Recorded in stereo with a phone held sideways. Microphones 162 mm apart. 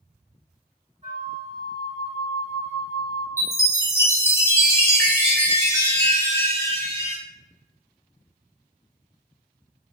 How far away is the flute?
About 1.6 m.